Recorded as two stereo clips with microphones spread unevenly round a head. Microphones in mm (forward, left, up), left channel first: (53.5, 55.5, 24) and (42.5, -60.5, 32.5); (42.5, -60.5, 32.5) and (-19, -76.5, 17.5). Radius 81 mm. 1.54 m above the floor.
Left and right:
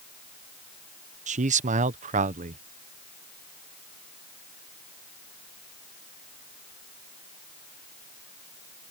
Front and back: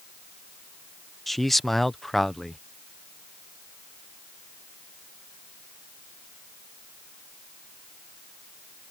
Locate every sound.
1.3 s a man speaking: 75° right